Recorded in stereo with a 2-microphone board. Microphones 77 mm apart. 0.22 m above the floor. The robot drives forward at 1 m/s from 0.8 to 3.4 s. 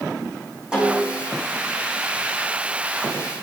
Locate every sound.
0.7 s a snare drum: 10° right (ahead or behind), 8 m